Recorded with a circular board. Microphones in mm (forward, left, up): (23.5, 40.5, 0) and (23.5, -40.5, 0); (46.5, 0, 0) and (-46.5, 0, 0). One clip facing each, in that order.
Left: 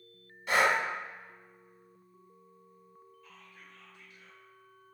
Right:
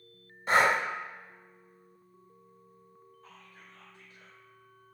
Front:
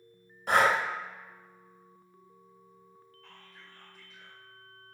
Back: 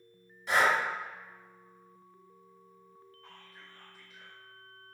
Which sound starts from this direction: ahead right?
Breathing, at 0.5 s.